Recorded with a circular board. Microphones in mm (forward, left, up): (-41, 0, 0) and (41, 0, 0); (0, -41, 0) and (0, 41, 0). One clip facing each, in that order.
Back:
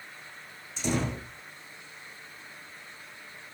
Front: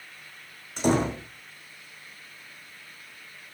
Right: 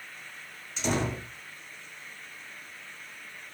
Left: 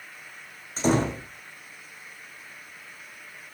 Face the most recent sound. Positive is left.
turn(degrees=35)